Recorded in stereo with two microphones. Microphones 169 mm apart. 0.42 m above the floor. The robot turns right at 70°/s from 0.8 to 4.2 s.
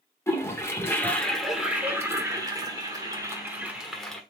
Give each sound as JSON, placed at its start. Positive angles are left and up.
{"t": 0.3, "sound": "a toilet flushing", "side_deg": 15, "distance_m": 1.2}